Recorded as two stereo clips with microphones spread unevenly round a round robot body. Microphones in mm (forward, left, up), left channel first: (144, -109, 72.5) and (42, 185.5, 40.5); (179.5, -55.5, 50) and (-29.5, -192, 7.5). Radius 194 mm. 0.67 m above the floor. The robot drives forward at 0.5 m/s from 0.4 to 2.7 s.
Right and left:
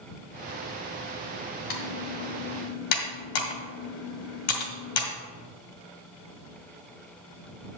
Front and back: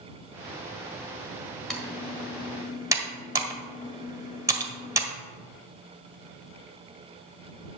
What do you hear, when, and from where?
1.7 s typing on a keyboard: 55° right, 2 m; by 5.1 s 70° right, 2.0 m